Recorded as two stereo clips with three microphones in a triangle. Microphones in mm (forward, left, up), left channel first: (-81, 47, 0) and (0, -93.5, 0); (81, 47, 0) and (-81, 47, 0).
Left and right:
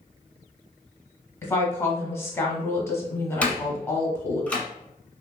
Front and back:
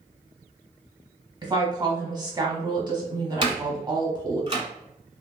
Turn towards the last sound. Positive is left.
turn(degrees=-165)